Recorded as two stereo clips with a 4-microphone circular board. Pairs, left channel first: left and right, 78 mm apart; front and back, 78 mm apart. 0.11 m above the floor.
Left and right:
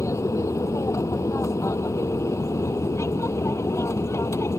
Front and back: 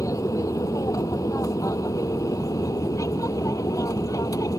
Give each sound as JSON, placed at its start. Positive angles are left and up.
{"t": 0.0, "sound": "an aircraft", "azimuth_deg": 45}